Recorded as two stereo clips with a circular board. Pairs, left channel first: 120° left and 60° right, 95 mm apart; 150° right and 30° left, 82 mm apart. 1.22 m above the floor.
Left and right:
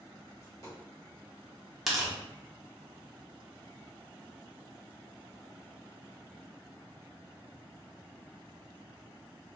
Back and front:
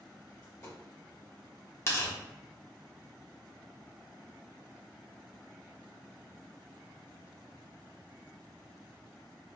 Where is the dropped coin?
165° left, 1.5 m.